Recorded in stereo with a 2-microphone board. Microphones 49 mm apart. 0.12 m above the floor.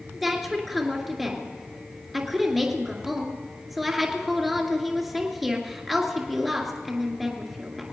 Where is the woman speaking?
5° right (ahead or behind), 2 m.